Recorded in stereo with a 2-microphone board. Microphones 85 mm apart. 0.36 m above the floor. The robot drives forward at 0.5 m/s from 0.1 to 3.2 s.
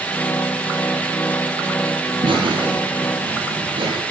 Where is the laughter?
80° right, 8.5 m.